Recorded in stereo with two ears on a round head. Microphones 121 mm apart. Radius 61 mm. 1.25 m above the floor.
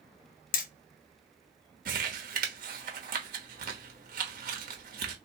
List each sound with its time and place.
0.5 s hammering: 65° left (ahead or behind), 0.6 m
1.9 s crumpling: 70° right (ahead or behind), 1.1 m